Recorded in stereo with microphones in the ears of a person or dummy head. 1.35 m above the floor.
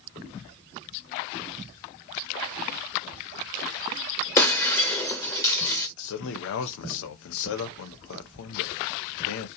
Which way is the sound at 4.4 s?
20° left (ahead or behind).